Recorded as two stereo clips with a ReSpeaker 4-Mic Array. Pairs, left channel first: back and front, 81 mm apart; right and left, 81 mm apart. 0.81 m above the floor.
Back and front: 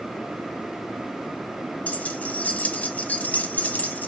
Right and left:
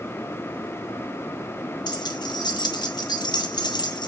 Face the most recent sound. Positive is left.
turn(degrees=-110)